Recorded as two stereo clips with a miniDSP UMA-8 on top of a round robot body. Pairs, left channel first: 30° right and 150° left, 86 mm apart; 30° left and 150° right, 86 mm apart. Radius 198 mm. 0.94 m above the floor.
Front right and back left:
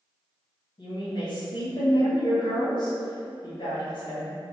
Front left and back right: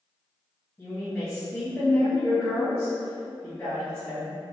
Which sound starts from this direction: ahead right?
A woman speaking, at 0.8 s.